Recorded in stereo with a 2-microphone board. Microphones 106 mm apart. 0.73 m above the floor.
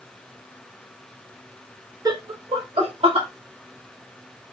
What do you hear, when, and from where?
2.0 s laughter: 35° right (ahead or behind), 0.6 m; by 3.3 s 65° right (ahead or behind), 1.3 m